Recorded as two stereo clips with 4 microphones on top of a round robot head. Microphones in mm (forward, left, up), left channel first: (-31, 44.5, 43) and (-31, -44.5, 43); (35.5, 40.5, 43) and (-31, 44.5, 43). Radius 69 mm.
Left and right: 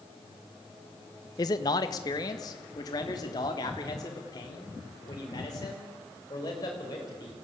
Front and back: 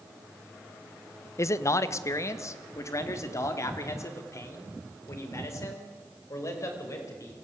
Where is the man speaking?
40° left, 1.0 m; by 7.3 s 35° left, 6 m.